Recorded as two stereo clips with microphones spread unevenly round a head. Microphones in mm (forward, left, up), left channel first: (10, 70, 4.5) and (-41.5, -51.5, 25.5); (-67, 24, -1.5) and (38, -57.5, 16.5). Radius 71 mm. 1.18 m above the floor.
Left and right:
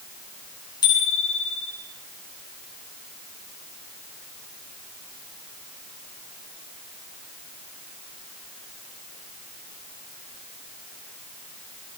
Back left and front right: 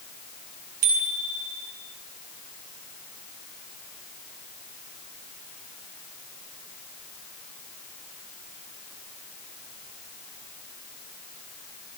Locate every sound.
0.8 s a bicycle bell: 5° left, 8.5 m